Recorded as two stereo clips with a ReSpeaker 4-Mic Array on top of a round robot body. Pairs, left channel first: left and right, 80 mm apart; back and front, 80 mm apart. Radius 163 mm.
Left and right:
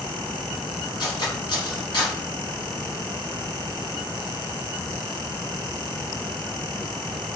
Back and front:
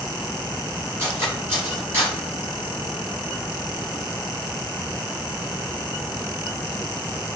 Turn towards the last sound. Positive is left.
turn(degrees=60)